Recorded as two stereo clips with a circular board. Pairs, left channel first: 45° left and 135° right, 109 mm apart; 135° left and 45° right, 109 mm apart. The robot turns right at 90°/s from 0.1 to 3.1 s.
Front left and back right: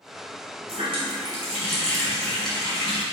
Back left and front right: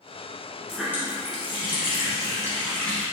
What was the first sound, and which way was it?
A running tap, 140° right.